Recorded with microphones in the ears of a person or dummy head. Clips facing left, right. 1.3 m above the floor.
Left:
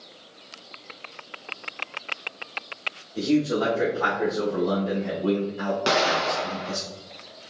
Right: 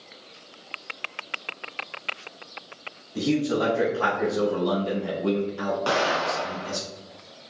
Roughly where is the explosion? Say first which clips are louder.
Left 3 dB; left.